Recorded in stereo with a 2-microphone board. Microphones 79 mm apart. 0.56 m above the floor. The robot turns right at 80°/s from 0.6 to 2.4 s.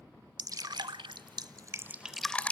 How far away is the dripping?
About 0.6 m.